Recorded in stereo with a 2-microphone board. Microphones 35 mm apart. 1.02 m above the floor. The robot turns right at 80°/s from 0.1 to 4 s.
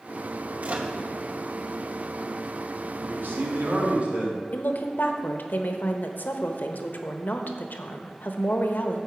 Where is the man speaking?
120° right, 2.5 m; by 4.4 s 45° right, 2.5 m.